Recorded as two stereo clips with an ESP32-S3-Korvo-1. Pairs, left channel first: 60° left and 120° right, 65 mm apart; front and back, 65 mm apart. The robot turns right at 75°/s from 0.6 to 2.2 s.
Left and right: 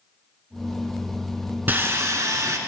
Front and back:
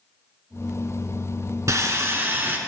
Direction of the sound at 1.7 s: 170° right.